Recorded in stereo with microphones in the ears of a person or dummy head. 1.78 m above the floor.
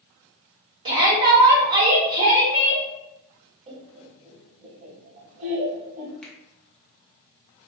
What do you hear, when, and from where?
0.8 s a shout: 25° right (ahead or behind), 1.0 m
3.7 s laughter: 35° right (ahead or behind), 0.6 m
6.2 s a finger snap: centre (ahead or behind), 0.6 m